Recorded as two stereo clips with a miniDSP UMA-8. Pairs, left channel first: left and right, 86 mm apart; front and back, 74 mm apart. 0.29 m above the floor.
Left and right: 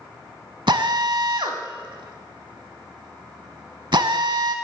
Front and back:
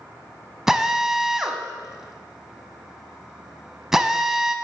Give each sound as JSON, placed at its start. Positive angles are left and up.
{"t": 0.7, "sound": "a drill", "azimuth_deg": -100, "distance_m": 0.8}